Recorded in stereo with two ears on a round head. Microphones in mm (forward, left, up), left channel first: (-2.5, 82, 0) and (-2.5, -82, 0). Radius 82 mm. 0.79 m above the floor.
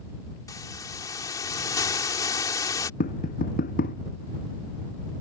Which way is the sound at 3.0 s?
50° left (ahead or behind).